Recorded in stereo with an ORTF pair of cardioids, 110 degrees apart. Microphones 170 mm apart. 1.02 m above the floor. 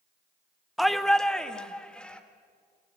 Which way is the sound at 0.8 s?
Straight ahead.